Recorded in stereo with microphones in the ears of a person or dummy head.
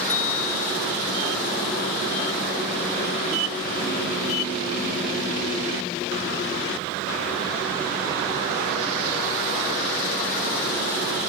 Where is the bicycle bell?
35° left (ahead or behind), 3 m.